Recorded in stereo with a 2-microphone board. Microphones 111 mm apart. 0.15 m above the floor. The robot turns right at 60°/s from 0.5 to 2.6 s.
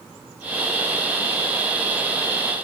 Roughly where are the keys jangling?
I don't hear keys jangling.